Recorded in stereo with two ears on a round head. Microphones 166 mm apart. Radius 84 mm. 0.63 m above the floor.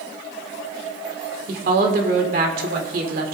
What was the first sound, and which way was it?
A woman speaking, 55° right (ahead or behind).